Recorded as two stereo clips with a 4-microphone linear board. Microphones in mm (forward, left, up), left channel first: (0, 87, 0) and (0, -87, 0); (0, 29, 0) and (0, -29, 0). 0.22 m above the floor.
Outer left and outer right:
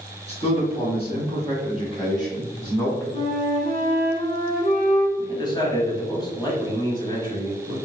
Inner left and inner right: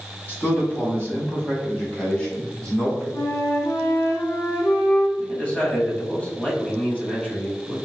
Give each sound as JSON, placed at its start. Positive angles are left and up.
{"t": 0.3, "sound": "a man speaking", "side_deg": 35, "distance_m": 1.6}
{"t": 3.1, "sound": "a flute", "side_deg": 50, "distance_m": 0.8}
{"t": 5.2, "sound": "a man speaking", "side_deg": 25, "distance_m": 1.0}